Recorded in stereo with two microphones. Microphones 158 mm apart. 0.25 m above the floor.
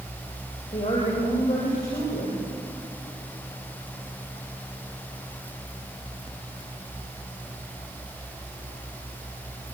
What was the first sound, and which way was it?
A woman speaking, 30° left (ahead or behind).